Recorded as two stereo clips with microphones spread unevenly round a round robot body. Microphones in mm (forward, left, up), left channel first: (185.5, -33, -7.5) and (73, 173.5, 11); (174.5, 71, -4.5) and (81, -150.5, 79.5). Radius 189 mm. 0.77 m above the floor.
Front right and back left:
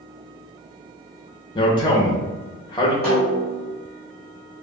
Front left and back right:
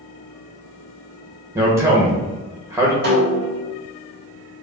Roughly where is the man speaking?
Ahead.